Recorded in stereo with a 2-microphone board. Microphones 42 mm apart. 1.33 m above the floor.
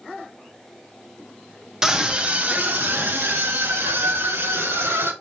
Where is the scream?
15° right (ahead or behind), 2 m; by 5.1 s 85° right, 5 m.